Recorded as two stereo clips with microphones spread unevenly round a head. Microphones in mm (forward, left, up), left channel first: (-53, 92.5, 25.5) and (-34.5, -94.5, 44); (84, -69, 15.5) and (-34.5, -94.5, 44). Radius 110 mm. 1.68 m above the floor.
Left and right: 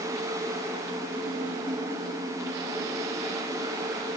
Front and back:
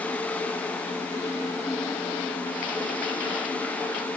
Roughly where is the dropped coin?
No dropped coin in this recording.